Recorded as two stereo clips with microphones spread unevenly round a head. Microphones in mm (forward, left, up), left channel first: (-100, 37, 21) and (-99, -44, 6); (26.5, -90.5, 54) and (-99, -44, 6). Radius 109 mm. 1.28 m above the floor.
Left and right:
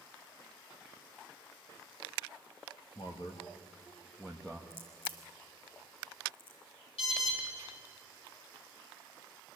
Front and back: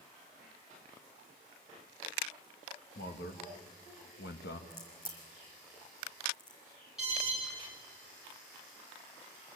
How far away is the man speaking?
About 1.9 m.